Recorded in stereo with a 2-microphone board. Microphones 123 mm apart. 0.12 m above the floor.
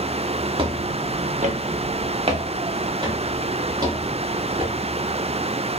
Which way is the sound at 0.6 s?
45° right (ahead or behind).